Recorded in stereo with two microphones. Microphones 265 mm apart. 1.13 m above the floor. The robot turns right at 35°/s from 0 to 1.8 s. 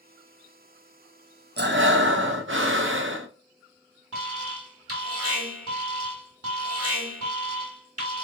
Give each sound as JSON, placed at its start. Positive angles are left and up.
{"t": 1.6, "sound": "breathing", "side_deg": -40, "distance_m": 0.6}
{"t": 4.1, "sound": "an alarm", "side_deg": -60, "distance_m": 1.4}